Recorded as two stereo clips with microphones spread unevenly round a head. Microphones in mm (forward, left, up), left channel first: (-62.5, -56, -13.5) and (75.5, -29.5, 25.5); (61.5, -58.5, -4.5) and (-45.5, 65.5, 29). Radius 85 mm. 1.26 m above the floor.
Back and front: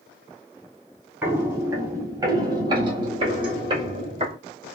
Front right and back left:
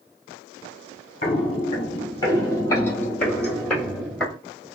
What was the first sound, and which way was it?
Footsteps, 15° right.